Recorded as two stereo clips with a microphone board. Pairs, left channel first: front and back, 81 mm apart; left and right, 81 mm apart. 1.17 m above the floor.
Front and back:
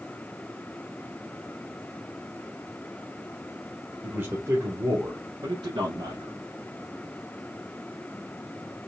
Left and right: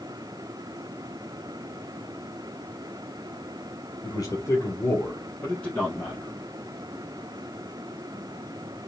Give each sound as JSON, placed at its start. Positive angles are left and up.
{"t": 4.0, "sound": "a man speaking", "azimuth_deg": 115, "distance_m": 1.1}